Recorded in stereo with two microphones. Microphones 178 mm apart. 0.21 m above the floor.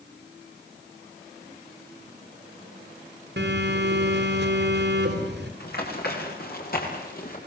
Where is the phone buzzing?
65° right (ahead or behind), 4 m.